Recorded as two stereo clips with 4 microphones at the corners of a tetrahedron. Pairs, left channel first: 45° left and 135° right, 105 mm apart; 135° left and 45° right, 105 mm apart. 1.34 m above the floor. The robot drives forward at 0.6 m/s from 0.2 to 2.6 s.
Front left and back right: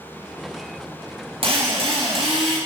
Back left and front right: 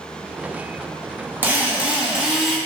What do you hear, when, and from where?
1.4 s a drill: 115° right, 1.8 m; by 2.6 s 130° right, 2 m